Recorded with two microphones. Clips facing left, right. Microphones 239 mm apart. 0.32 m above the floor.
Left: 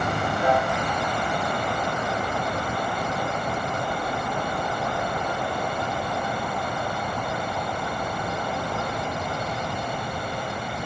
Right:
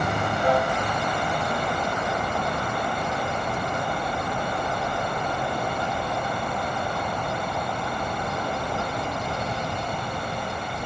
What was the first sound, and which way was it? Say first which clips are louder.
A piano: right 1 dB; 75° left (ahead or behind).